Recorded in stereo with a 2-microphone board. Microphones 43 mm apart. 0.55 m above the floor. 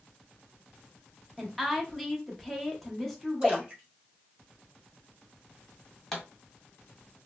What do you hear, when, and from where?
1.4 s a woman speaking: 5° left (ahead or behind), 0.6 m
3.4 s a splash: 20° right (ahead or behind), 1.5 m
6.1 s a pop: 5° left (ahead or behind), 1.2 m